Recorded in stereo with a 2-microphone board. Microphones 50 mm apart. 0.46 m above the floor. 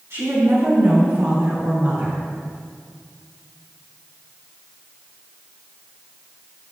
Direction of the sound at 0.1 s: 65° right (ahead or behind).